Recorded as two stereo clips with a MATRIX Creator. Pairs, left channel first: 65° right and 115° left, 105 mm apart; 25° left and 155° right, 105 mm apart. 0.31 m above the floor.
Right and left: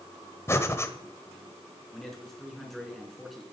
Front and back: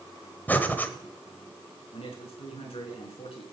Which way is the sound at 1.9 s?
20° left.